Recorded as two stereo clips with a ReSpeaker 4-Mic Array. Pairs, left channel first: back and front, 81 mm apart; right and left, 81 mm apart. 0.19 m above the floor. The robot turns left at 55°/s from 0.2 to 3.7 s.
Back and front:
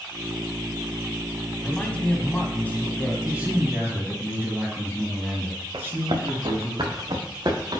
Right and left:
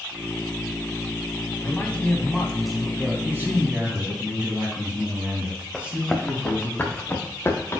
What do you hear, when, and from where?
1.6 s a man speaking: 120° right, 1.2 m; by 3.1 s 155° left, 1.2 m
3.2 s a man speaking: 60° left, 1.8 m; by 6.7 s 35° left, 1.8 m
5.7 s running footsteps: straight ahead, 1.6 m; by 7.8 s 35° right, 2.0 m